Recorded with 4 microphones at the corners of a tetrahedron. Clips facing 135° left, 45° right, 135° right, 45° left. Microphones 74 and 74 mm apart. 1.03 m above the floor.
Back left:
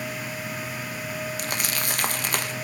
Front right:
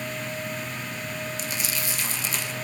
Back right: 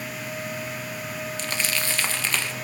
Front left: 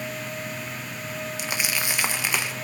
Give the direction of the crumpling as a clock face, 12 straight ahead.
8 o'clock.